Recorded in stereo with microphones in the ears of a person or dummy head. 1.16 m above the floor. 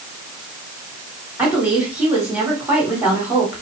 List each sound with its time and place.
1.4 s a woman speaking: 15° right (ahead or behind), 2.5 m